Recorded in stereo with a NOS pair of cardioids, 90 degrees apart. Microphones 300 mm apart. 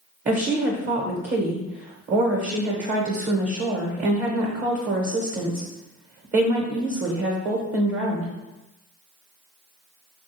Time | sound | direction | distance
0.2 | a woman speaking | 40° right | 1.0 m